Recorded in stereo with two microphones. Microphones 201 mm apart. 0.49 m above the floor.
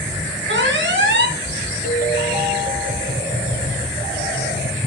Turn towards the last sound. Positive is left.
turn(degrees=-40)  # may be behind; listen again after turning